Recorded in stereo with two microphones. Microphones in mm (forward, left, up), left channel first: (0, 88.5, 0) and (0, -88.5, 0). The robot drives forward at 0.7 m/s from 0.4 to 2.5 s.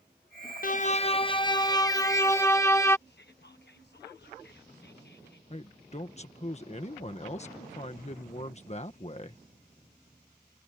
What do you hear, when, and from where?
0.6 s a violin: 50° left (ahead or behind); by 3.0 s 15° left (ahead or behind)
3.1 s whispering: 70° left (ahead or behind)
5.5 s a man speaking: 40° left (ahead or behind)